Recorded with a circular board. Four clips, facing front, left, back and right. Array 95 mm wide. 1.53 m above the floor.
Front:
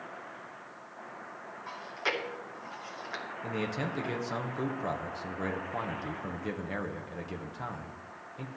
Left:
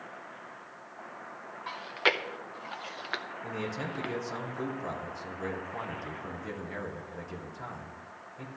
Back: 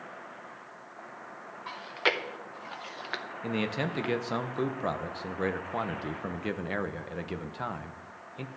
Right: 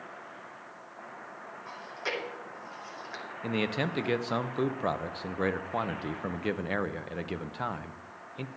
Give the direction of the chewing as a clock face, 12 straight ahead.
8 o'clock.